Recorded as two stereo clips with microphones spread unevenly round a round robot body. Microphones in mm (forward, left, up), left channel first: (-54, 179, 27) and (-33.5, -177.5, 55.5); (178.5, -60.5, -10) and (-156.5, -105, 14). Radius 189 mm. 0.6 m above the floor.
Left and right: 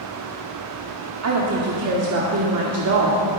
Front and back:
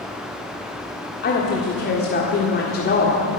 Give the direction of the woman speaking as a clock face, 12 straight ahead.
1 o'clock.